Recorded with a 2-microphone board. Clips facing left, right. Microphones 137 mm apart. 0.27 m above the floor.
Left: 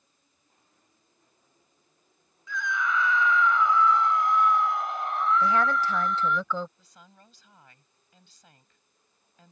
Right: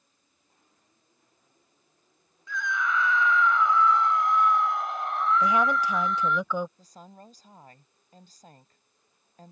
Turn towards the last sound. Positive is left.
turn(degrees=-40)  # may be behind; listen again after turning